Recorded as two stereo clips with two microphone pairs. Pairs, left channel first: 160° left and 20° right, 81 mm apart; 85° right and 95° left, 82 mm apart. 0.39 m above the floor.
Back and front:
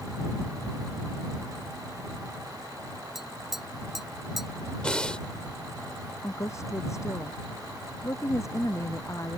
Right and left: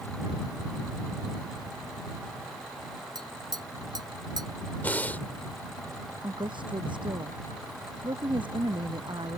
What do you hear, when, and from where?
3.1 s tapping: 70° left
4.8 s breathing: 130° right
6.2 s a woman speaking: 110° left